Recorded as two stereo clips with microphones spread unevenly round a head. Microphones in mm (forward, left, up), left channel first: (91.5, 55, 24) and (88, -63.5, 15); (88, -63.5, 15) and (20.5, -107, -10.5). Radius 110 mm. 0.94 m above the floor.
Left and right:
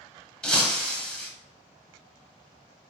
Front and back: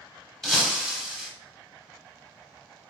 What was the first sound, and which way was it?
Breaking glass, 25° left.